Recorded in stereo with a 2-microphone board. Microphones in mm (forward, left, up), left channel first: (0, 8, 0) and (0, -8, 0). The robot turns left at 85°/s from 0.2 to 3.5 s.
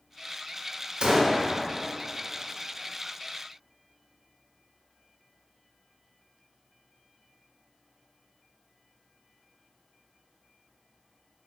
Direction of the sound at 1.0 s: 100° right.